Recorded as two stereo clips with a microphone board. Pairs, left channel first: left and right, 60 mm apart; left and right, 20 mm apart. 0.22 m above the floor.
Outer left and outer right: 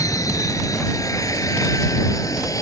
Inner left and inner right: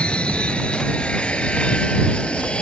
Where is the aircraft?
65° left (ahead or behind).